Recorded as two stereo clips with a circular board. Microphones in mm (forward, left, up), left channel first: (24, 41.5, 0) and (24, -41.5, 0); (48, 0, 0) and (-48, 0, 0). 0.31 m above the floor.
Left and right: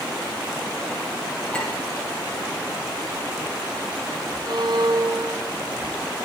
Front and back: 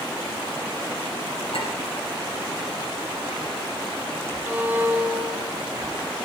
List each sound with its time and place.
1.5 s a clink: 10° left, 8.5 m
4.5 s a violin: 105° right, 1.7 m